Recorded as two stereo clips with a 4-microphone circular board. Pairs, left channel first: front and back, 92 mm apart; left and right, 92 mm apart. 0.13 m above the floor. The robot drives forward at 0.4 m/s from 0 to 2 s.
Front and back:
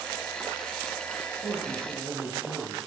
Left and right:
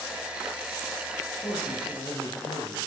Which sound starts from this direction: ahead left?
A man speaking, at 1.4 s.